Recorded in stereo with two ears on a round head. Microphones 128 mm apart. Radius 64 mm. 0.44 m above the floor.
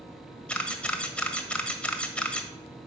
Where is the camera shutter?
10° left (ahead or behind), 1.2 m.